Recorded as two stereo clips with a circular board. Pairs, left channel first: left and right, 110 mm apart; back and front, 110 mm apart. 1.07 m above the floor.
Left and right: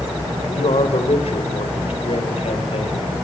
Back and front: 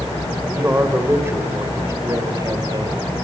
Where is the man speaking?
70° left, 5.5 m; by 3.1 s 55° left, 5.5 m.